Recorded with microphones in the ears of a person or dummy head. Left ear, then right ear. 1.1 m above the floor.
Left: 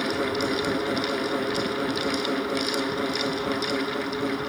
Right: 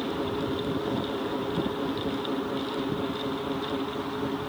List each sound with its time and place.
0.0 s a fan: 70° left (ahead or behind)